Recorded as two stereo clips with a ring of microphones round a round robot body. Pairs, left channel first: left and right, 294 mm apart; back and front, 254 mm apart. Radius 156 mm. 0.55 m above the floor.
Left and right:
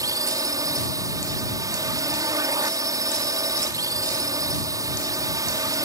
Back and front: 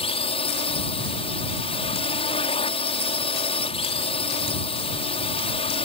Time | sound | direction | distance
0.0 | a drone | 150° right | ?